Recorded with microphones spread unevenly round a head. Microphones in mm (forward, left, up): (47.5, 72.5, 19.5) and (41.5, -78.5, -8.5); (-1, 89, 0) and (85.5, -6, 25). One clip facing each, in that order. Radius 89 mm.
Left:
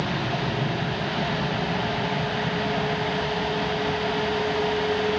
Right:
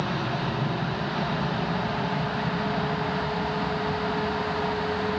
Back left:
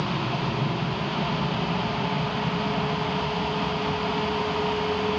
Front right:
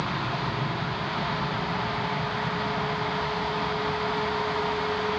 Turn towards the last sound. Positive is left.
turn(degrees=-175)